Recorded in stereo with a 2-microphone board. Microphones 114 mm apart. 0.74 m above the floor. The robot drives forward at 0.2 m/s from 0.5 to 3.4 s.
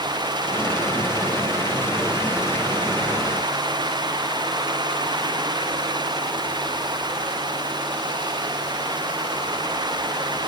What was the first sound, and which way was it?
Only background noise.